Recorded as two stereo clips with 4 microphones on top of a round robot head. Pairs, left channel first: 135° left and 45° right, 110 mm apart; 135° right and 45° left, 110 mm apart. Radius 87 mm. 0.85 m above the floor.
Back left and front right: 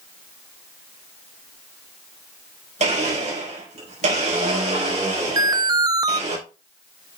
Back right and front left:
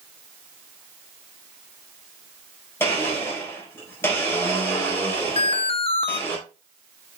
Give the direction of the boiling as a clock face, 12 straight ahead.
I don't hear boiling.